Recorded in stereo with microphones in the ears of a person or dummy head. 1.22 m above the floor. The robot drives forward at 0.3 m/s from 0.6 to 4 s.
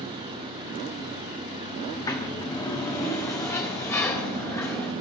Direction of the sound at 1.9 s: 20° left (ahead or behind).